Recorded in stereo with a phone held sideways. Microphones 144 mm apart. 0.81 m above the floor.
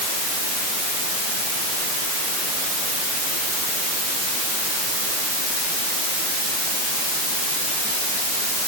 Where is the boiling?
I don't hear boiling.